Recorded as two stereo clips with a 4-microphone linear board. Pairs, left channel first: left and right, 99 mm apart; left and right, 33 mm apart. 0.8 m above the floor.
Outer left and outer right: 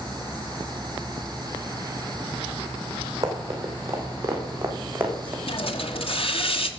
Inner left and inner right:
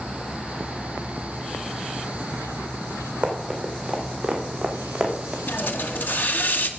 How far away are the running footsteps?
About 4 m.